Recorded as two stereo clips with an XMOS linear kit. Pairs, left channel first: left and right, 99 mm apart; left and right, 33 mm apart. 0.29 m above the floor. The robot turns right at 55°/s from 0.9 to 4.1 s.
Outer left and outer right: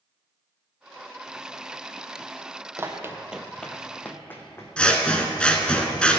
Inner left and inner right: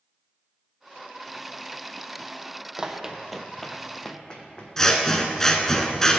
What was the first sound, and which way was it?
Running footsteps, 25° right (ahead or behind).